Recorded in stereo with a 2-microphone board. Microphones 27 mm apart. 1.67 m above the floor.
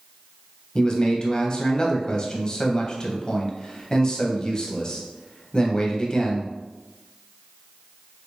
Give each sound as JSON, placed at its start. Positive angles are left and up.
{"t": 0.8, "sound": "a man speaking", "side_deg": 25, "distance_m": 0.7}